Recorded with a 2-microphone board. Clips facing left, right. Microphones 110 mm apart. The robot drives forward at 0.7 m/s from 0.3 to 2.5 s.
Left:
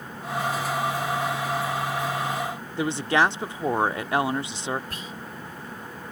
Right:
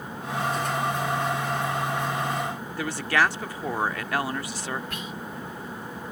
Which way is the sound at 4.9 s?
35° left (ahead or behind).